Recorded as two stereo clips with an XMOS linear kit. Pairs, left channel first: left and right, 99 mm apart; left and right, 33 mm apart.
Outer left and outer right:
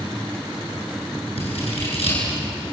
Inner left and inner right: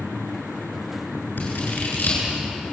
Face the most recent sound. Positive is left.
turn(degrees=85)